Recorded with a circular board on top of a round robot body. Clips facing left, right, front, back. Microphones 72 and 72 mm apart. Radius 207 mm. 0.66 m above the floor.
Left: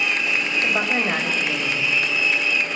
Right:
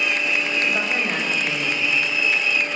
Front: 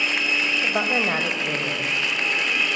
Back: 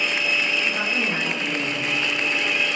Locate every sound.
0.6 s a woman speaking: 20° left, 4 m